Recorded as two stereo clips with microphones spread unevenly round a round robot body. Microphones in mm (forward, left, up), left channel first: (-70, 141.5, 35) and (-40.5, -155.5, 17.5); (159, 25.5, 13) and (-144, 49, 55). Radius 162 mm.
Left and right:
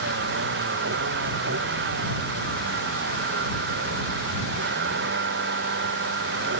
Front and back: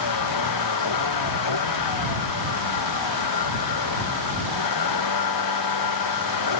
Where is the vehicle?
25° right.